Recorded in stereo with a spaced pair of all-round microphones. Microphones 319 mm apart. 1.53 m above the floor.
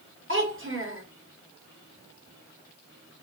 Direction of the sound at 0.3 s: 40° right (ahead or behind).